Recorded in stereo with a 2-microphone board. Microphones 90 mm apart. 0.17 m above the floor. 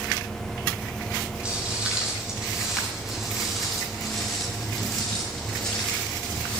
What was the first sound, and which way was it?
Footsteps, 15° right (ahead or behind).